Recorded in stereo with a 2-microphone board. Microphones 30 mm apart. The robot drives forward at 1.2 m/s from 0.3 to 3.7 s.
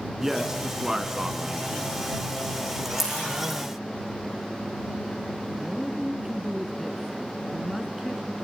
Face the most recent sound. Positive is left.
turn(degrees=-10)  # may be behind; listen again after turning